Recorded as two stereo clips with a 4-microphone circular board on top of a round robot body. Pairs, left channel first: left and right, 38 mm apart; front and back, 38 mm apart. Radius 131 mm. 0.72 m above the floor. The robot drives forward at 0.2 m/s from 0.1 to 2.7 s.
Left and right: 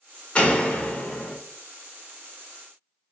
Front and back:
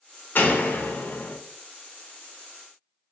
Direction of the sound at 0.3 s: 30° left.